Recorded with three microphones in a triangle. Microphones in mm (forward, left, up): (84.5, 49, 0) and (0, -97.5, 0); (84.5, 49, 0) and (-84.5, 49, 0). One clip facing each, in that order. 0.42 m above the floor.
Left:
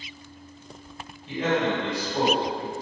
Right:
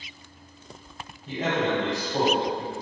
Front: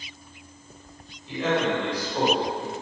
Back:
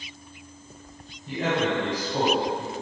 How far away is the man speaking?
About 1.7 m.